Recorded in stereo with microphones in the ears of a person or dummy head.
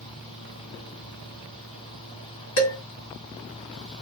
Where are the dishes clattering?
65° left (ahead or behind), 1.8 m.